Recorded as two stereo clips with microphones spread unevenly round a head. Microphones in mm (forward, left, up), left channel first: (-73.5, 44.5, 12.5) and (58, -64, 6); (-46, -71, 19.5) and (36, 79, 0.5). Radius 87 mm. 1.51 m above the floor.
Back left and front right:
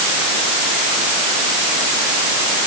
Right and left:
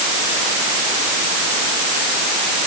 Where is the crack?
No crack in this recording.